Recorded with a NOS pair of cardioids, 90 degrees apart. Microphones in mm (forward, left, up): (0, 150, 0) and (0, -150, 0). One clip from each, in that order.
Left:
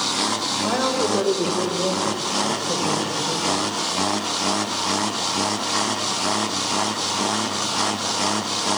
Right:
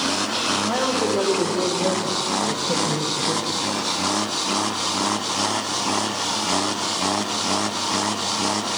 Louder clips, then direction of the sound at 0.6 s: Even; 5° left.